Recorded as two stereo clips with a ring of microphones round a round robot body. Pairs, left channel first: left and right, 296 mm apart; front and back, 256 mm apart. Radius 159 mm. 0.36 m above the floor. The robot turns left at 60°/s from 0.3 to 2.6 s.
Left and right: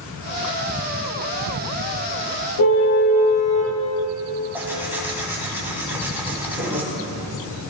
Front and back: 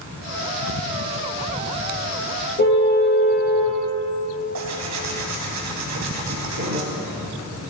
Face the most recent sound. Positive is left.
turn(degrees=-175)